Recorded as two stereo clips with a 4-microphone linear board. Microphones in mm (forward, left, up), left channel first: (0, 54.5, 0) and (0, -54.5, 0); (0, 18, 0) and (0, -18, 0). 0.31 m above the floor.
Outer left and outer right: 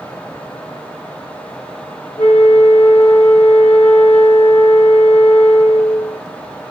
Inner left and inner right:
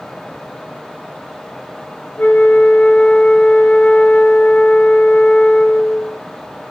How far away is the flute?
About 1.6 m.